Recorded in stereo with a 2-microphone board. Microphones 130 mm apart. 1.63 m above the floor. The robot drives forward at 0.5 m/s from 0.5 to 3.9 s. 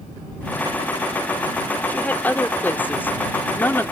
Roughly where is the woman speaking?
Centre.